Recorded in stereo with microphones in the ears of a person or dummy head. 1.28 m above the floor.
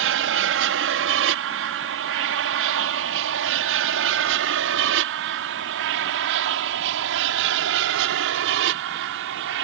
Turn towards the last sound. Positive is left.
turn(degrees=-65)  # may be behind; listen again after turning